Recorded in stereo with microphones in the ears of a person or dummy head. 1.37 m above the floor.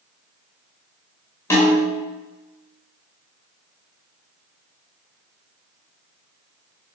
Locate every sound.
1.5 s a snare drum: 20° left (ahead or behind), 5.5 m